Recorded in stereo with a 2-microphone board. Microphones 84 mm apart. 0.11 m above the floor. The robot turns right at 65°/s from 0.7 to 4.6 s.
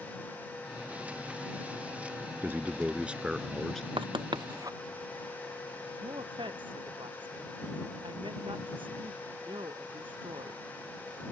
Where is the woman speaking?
80° right.